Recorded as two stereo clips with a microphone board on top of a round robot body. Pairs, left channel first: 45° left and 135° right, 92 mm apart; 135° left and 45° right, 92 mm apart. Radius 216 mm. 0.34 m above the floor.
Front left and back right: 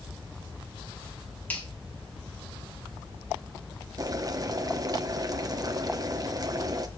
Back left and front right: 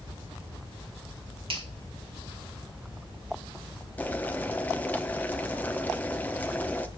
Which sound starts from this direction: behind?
Boiling, at 4.0 s.